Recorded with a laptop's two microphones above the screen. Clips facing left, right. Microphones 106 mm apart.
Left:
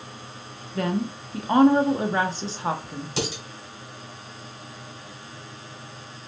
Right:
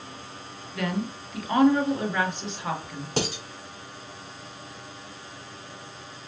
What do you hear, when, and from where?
0.8 s a woman speaking: 35° left (ahead or behind), 1.0 m
3.2 s dishes clattering: 45° right (ahead or behind), 1.8 m